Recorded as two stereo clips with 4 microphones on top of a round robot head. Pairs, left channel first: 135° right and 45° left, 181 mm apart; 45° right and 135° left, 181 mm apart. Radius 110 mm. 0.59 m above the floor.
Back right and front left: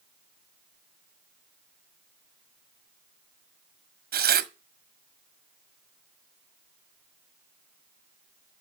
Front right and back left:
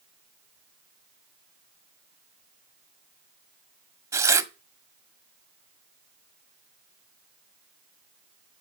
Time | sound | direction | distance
4.1 | tearing paper | 60° left | 1.6 m